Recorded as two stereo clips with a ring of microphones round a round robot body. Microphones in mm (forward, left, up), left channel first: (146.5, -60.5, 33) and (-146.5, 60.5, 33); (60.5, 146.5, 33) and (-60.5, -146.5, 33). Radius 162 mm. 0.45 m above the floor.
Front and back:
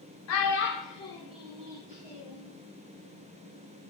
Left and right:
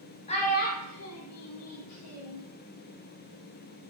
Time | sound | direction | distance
0.3 | a child speaking | straight ahead | 0.8 m